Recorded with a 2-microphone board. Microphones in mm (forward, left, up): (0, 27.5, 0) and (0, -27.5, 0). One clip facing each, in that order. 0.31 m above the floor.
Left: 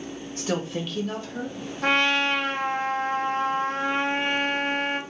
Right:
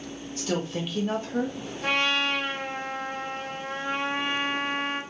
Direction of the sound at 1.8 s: 60° left (ahead or behind).